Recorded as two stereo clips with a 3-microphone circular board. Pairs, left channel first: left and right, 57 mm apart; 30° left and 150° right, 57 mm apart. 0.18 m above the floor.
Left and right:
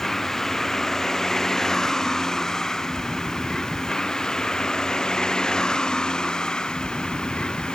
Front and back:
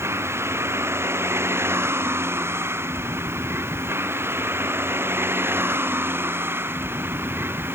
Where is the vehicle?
170° left; by 7.8 s 165° left.